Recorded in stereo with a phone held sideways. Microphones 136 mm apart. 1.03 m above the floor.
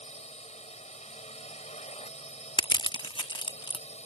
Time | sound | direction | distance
0.0 | a drone | 55° left (ahead or behind) | ?
2.6 | crushing | 35° left (ahead or behind) | ?